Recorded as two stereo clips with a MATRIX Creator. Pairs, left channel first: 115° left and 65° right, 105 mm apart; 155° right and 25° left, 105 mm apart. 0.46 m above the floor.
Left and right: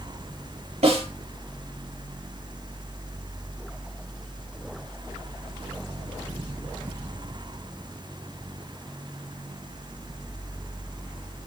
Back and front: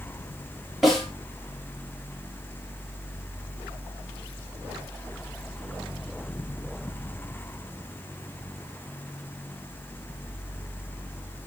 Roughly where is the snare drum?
Ahead right.